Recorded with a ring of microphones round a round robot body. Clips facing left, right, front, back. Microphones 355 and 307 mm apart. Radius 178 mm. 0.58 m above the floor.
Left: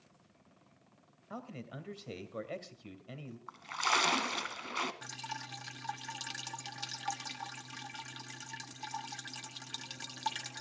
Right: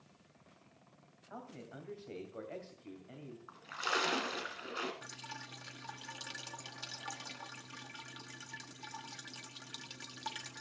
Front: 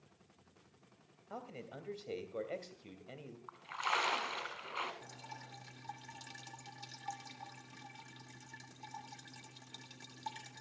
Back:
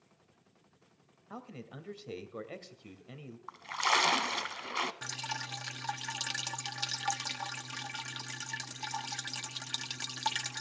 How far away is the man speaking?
About 2.5 m.